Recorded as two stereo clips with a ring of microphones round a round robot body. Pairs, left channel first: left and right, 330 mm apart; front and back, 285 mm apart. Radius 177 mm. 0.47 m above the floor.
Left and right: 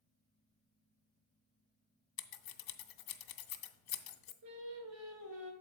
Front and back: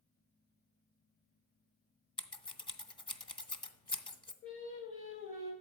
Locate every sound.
2.2 s scissors: 75° left, 0.9 m
4.4 s singing: 60° right, 2 m